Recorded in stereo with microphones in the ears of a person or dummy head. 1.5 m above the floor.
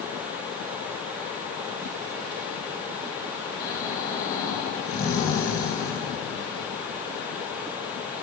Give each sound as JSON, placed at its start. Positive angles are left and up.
{"t": 3.6, "sound": "snoring", "side_deg": 20, "distance_m": 1.9}